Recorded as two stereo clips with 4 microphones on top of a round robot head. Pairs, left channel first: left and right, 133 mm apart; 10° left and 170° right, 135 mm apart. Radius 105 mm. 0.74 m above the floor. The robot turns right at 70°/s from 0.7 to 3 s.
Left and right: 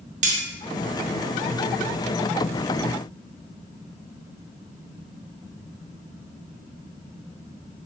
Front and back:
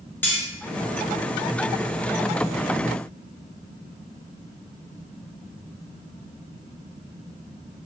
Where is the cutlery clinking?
65° right, 0.5 m.